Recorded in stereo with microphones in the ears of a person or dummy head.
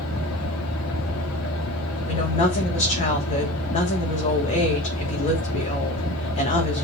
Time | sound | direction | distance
0.0 | a fan | 70° left (ahead or behind) | 2 m
2.1 | a woman speaking | 35° left (ahead or behind) | 3.5 m